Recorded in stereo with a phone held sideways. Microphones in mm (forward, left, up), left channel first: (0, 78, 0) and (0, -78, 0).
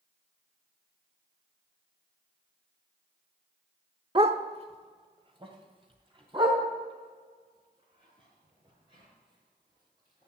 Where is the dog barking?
35° right (ahead or behind), 0.8 m; by 10.3 s 30° right (ahead or behind), 7.5 m.